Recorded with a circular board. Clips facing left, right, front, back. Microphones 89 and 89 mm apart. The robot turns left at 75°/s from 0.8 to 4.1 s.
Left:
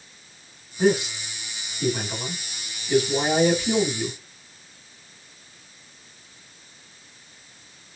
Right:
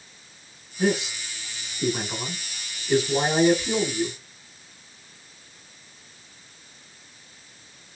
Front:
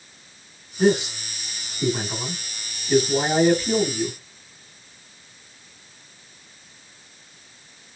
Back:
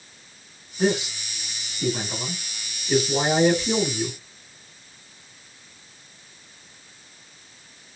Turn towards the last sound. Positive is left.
turn(degrees=155)